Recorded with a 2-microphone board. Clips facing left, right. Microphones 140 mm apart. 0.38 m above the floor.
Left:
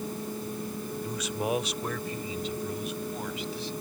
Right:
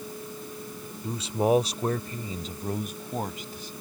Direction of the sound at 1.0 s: 25° right (ahead or behind).